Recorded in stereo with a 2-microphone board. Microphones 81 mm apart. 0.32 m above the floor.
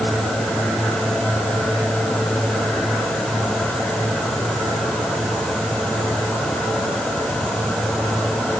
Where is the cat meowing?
I don't hear a cat meowing.